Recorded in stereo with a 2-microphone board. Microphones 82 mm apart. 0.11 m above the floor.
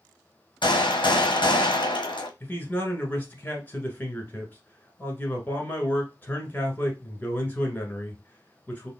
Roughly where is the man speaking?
Left.